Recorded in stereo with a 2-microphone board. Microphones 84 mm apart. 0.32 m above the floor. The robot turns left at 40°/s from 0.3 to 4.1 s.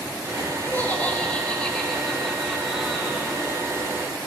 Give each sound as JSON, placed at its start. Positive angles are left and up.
{"t": 0.6, "sound": "laughter", "side_deg": 20, "distance_m": 1.3}